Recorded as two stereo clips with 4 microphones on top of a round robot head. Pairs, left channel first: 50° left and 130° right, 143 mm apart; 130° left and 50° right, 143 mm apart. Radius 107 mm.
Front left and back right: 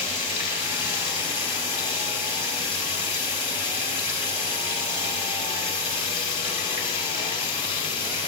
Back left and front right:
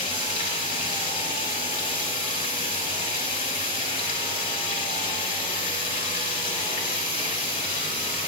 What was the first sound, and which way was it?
Running water, 90° left.